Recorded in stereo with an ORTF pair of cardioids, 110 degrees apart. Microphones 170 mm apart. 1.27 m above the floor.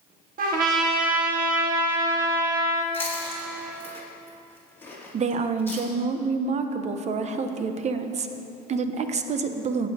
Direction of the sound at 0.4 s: 55° right.